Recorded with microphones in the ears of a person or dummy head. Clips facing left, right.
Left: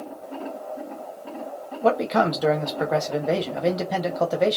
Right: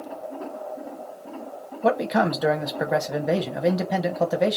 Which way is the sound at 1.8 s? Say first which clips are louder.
Left 1 dB; centre (ahead or behind).